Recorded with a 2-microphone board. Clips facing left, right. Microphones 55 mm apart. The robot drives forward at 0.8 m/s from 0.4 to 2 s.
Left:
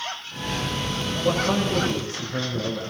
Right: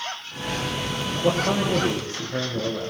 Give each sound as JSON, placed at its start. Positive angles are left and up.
{"t": 1.2, "sound": "a man speaking", "side_deg": -40, "distance_m": 6.5}